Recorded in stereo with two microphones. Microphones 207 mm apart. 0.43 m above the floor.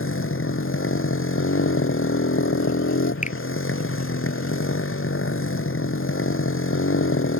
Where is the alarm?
I don't hear an alarm.